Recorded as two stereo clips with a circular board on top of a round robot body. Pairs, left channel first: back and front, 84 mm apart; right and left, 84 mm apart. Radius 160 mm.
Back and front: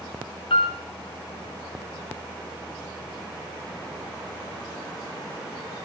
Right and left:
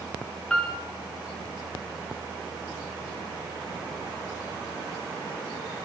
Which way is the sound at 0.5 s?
170° right.